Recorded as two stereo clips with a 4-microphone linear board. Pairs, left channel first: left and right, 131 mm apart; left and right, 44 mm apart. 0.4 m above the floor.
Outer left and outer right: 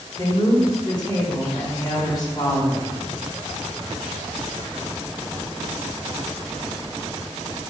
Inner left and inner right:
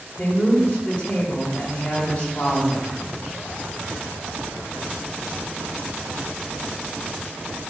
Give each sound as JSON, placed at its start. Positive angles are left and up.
{"t": 0.2, "sound": "a woman speaking", "side_deg": 35, "distance_m": 1.0}